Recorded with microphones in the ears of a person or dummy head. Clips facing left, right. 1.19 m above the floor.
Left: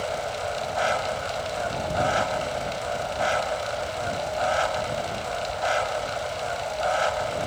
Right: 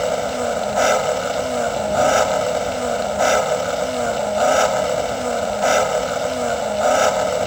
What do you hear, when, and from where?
0.0 s an engine running: 65° right (ahead or behind)